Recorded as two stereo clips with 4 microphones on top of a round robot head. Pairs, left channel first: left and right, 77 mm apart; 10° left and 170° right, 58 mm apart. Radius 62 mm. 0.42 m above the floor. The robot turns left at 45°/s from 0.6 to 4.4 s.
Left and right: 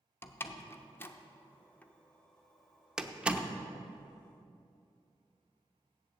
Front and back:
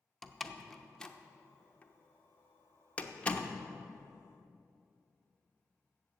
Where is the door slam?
90° left, 0.7 m; by 3.5 s 40° right, 0.7 m.